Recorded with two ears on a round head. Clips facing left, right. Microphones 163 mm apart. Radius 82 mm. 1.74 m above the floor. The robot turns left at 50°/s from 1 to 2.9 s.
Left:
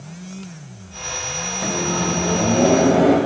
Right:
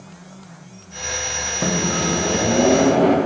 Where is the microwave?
125° right, 0.5 m; by 3.2 s 170° left, 0.5 m.